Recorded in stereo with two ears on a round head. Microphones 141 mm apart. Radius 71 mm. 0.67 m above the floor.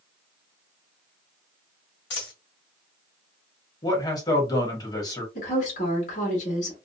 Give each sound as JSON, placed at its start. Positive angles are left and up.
{"t": 2.1, "sound": "a dropped coin", "side_deg": 75, "distance_m": 1.4}
{"t": 3.8, "sound": "a man speaking", "side_deg": 25, "distance_m": 1.1}
{"t": 5.3, "sound": "a woman speaking", "side_deg": 50, "distance_m": 1.6}